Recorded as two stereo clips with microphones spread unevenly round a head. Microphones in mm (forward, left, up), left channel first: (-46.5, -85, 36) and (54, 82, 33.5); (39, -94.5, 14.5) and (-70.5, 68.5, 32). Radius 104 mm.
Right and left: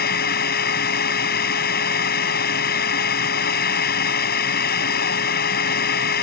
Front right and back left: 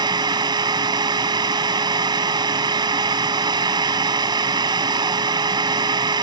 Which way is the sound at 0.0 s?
165° right.